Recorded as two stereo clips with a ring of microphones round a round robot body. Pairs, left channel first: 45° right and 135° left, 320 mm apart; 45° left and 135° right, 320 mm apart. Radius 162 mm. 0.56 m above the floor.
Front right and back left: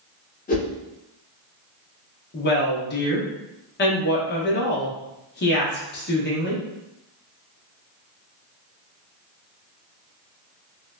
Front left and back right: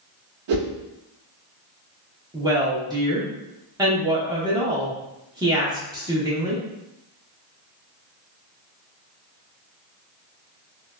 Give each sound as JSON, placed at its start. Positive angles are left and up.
{"t": 0.5, "sound": "a whoosh", "azimuth_deg": -110, "distance_m": 0.8}
{"t": 2.3, "sound": "a woman speaking", "azimuth_deg": -65, "distance_m": 0.8}